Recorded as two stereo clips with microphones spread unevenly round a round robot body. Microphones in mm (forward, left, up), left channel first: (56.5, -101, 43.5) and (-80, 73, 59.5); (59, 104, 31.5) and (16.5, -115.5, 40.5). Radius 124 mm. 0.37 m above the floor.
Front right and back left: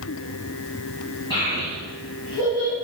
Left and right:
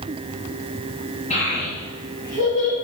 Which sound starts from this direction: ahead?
A child speaking, at 1.3 s.